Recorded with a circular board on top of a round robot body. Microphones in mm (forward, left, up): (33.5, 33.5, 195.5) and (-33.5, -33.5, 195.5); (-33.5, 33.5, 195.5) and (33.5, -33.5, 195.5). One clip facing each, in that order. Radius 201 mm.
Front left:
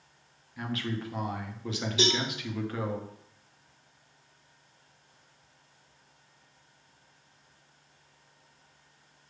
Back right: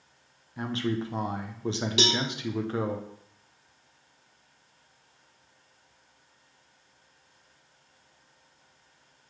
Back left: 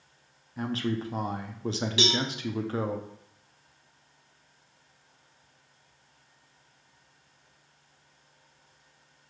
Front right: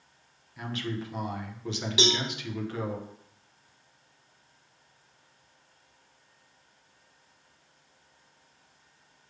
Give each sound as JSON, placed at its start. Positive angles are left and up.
{"t": 0.6, "sound": "a man speaking", "azimuth_deg": 175, "distance_m": 0.7}
{"t": 2.0, "sound": "a cowbell", "azimuth_deg": -120, "distance_m": 0.7}